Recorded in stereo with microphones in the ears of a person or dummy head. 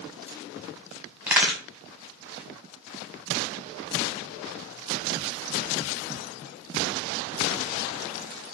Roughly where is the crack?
Centre.